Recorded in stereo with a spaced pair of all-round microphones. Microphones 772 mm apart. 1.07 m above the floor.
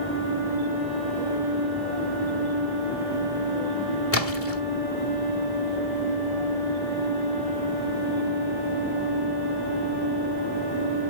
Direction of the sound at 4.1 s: 20° left (ahead or behind).